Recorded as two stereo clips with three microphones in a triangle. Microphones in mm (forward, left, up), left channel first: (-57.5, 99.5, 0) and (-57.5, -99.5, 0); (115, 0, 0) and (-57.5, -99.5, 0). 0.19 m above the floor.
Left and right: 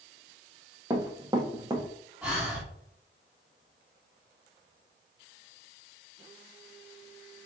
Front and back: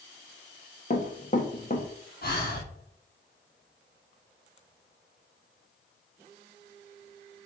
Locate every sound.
0.9 s running footsteps: 20° right, 1.6 m
2.2 s breathing: 5° right, 2.0 m